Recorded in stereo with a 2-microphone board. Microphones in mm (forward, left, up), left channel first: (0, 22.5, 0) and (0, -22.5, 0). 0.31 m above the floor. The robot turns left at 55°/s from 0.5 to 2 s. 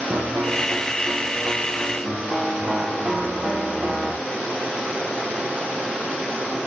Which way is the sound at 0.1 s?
70° right.